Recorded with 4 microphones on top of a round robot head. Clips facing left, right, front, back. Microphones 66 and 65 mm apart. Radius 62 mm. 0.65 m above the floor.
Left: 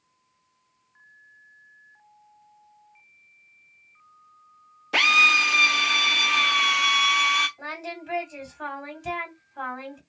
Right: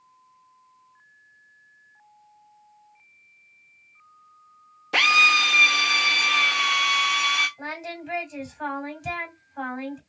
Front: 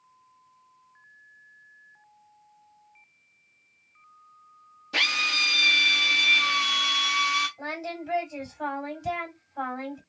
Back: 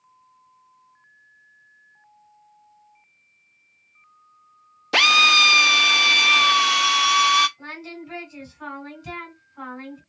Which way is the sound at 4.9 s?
Straight behind.